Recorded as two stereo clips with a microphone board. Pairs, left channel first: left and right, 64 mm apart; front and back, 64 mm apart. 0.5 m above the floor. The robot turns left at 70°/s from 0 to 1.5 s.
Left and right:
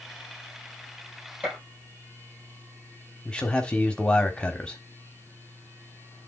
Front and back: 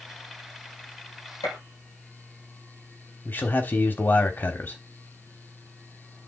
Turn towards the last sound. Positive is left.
turn(degrees=30)